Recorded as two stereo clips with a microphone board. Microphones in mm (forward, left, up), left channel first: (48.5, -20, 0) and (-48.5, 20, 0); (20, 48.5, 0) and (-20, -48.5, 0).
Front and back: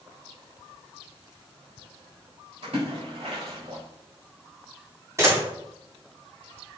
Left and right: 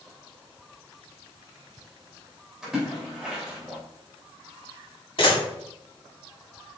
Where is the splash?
165° left, 3 m.